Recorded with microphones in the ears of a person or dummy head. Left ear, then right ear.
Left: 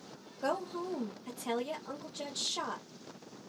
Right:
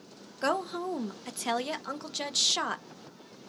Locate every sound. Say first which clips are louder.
0.4 s a woman speaking: right 5 dB; 55° right (ahead or behind), 0.7 m